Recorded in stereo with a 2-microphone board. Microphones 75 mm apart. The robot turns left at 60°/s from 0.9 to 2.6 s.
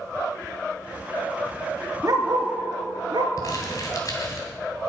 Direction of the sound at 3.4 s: 50° left (ahead or behind).